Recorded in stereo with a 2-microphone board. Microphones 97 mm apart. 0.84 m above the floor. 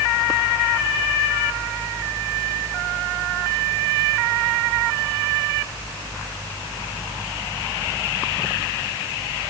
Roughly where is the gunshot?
I don't hear a gunshot.